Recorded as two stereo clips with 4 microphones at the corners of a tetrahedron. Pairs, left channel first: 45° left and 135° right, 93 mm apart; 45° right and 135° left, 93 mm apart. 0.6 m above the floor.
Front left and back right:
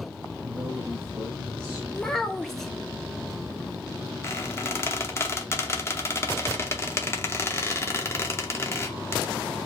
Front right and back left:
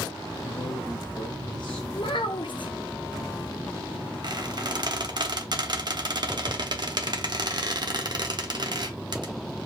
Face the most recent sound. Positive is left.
turn(degrees=105)